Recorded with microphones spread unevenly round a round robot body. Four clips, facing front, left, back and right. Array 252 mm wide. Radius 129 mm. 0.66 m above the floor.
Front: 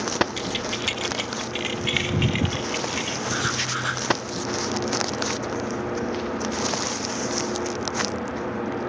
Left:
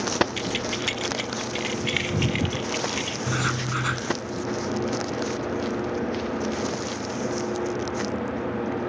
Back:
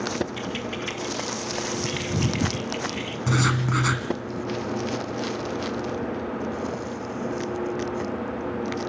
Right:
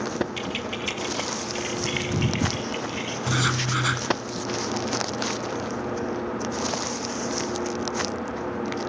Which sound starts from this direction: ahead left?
Keys jangling, at 0.4 s.